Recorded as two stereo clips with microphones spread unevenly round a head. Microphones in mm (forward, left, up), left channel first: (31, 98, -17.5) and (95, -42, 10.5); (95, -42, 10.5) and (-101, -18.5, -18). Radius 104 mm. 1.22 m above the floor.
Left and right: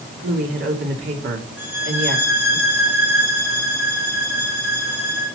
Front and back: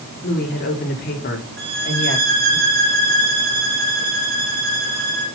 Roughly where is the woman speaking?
Ahead right.